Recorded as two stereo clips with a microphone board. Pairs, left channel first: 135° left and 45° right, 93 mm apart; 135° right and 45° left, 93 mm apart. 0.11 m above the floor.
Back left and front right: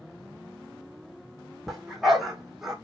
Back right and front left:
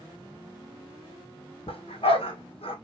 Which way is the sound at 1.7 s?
135° right.